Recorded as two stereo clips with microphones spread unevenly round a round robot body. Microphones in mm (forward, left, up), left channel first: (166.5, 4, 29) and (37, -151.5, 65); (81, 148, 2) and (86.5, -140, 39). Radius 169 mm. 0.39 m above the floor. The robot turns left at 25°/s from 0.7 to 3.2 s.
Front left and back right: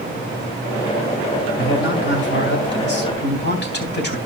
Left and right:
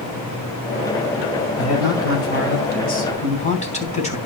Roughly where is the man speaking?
Left.